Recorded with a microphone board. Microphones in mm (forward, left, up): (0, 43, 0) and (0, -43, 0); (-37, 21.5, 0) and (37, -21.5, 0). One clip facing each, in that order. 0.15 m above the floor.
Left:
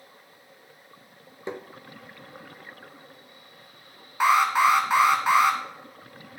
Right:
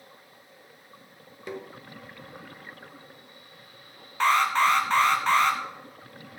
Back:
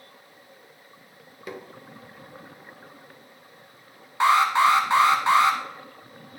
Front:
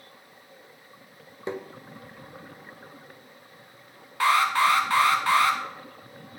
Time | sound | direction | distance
1.5 | tapping | 30° left | 0.6 m
4.2 | an alarm | 145° left | 1.3 m